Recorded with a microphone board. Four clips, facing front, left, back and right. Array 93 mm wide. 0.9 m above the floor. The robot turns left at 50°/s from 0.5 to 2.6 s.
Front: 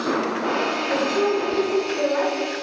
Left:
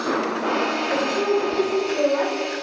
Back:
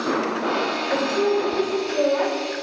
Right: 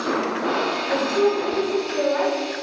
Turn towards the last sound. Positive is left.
turn(degrees=-80)